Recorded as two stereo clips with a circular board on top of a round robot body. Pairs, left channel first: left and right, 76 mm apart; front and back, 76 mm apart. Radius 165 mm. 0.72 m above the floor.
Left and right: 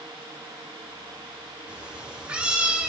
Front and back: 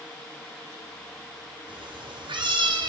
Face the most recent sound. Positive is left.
turn(degrees=-165)